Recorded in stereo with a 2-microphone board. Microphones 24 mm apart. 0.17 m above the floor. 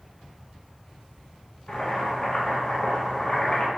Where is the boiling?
45° left (ahead or behind), 0.7 m.